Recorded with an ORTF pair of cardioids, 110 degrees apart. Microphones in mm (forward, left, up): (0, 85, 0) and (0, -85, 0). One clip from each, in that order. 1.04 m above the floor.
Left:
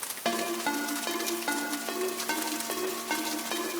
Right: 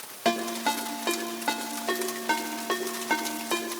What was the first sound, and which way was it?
A ringtone, 25° right.